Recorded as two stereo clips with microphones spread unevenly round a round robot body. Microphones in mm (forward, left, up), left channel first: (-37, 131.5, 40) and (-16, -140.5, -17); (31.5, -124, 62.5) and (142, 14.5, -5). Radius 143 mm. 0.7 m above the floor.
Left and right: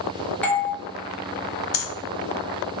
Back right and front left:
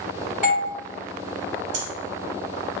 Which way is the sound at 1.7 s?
100° left.